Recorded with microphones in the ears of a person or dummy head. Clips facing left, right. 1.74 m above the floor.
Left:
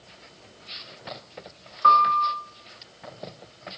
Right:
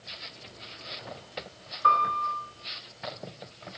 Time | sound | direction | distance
1.8 | a piano | 60° left (ahead or behind) | 2.0 m